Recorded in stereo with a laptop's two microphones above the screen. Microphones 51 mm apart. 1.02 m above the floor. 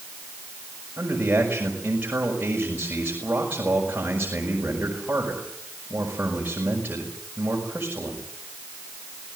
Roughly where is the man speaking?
Right.